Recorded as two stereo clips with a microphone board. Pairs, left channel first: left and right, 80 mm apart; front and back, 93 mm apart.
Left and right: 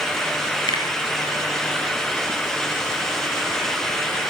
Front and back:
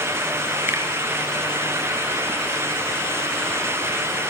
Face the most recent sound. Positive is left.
turn(degrees=115)